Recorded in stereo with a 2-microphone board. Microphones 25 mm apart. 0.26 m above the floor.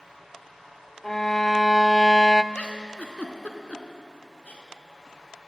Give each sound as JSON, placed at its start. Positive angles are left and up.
{"t": 1.0, "sound": "a violin", "side_deg": 20, "distance_m": 0.5}
{"t": 2.5, "sound": "a giggle", "side_deg": 65, "distance_m": 2.5}